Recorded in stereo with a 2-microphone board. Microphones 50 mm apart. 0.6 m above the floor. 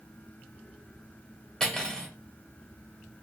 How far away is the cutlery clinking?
About 0.9 m.